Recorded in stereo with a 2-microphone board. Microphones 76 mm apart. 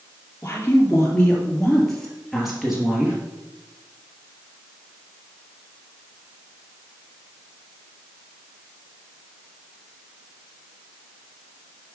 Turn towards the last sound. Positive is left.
turn(degrees=-10)  # may be behind; listen again after turning